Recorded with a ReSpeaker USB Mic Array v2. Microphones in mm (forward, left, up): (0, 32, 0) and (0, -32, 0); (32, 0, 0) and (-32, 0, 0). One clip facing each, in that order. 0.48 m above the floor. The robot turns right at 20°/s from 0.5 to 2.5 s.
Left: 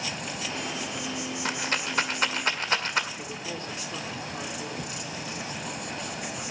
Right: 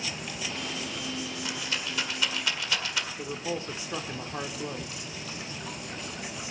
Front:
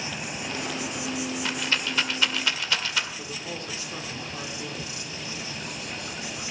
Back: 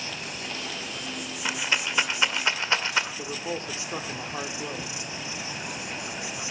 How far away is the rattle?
About 1.7 m.